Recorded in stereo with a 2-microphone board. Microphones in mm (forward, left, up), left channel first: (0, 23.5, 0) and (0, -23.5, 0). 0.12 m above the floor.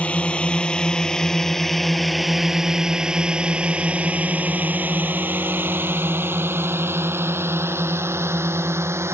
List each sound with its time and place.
0.0 s a drone: 25° left (ahead or behind); by 9.2 s 70° right (ahead or behind)